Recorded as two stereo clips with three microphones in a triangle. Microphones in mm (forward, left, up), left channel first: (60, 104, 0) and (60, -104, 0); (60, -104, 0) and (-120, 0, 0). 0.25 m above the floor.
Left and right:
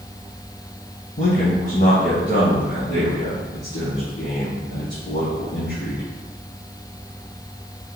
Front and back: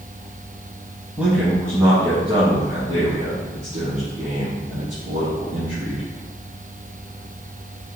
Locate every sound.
1.2 s a man speaking: 70° left, 1.1 m; by 6.0 s 105° left, 3.5 m